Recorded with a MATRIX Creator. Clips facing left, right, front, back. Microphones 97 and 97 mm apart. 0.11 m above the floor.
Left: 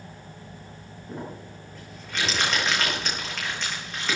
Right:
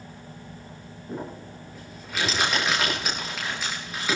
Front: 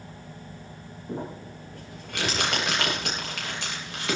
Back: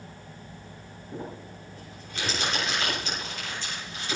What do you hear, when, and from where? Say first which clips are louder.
1.1 s crumpling: right 2 dB, front 4 dB; 5° right, 9.5 m